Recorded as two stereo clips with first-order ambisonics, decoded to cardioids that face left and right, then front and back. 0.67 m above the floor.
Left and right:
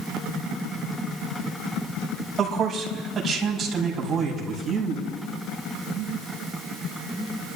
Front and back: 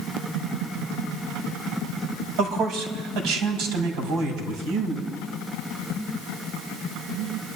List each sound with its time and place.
2.4 s a man speaking: 165° right, 5 m; by 5.1 s 175° right, 6 m